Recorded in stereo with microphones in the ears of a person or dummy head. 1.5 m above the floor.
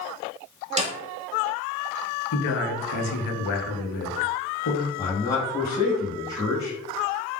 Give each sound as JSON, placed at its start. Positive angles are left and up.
{"t": 0.8, "sound": "a snare drum", "side_deg": -25, "distance_m": 0.5}
{"t": 2.3, "sound": "a man speaking", "side_deg": 70, "distance_m": 0.6}
{"t": 5.0, "sound": "a man speaking", "side_deg": 25, "distance_m": 0.8}